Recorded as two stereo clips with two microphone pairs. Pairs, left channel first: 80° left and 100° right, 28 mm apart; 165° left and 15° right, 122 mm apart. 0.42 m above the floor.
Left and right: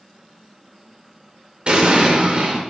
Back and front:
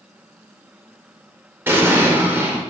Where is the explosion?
75° right, 0.6 m.